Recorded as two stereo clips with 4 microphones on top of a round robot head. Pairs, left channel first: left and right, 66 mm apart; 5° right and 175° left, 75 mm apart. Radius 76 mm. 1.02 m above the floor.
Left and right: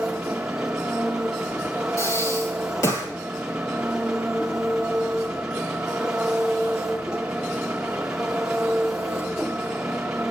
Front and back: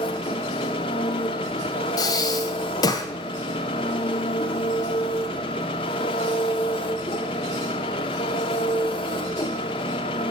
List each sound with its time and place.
0.0 s an engine running: 10° right, 0.8 m
2.0 s breathing: 30° left, 1.6 m